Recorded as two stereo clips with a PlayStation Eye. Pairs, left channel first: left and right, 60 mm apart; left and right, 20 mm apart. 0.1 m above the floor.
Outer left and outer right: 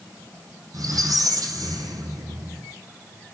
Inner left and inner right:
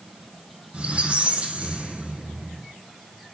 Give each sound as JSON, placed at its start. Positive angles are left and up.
{"t": 0.7, "sound": "a squeak", "side_deg": -70, "distance_m": 3.0}